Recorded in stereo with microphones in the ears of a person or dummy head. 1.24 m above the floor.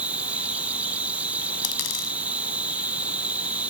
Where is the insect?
5° right (ahead or behind).